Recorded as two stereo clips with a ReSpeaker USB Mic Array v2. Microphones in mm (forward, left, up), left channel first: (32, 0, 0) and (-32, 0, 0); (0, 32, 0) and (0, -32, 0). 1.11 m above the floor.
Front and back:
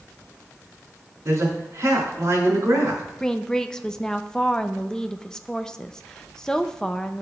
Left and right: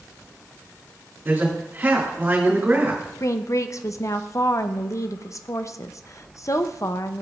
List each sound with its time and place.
1.2 s a man speaking: 145° right, 3.5 m
3.2 s a woman speaking: 80° left, 0.5 m